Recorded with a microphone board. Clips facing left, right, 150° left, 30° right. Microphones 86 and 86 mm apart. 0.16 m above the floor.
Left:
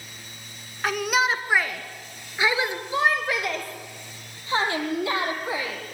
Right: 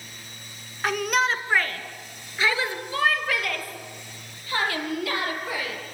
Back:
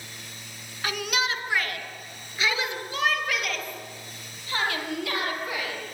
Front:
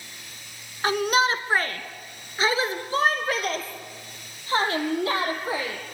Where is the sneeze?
I don't hear a sneeze.